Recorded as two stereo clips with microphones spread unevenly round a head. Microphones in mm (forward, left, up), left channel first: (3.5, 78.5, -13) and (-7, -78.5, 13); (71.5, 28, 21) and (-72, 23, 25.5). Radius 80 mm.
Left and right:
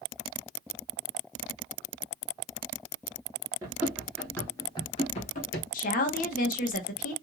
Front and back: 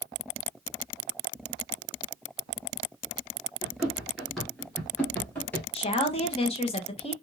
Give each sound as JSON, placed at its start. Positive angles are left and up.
{"t": 3.6, "sound": "running footsteps", "azimuth_deg": -105, "distance_m": 1.4}
{"t": 5.7, "sound": "a woman speaking", "azimuth_deg": 50, "distance_m": 1.1}